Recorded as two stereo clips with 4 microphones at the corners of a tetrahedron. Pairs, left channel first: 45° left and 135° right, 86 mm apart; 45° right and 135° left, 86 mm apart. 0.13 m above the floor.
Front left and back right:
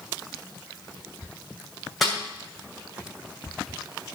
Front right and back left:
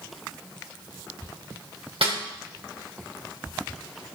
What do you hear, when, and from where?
2.0 s a snare drum: 135° left, 4 m